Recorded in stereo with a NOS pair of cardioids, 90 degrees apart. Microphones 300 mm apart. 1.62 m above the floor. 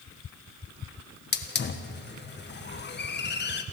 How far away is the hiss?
About 1.7 m.